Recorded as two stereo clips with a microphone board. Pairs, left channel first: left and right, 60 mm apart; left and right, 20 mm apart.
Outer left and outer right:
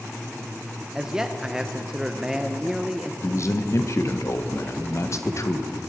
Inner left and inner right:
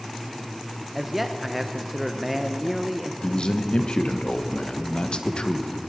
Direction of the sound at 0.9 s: 10° right (ahead or behind).